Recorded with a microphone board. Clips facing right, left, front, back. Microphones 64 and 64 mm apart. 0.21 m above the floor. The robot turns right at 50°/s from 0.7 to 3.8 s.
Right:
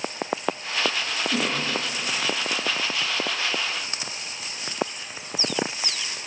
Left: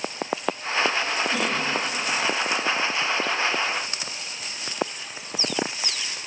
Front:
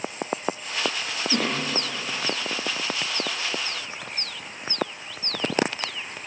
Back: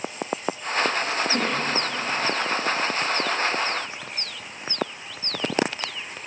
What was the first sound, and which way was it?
A cough, 20° right.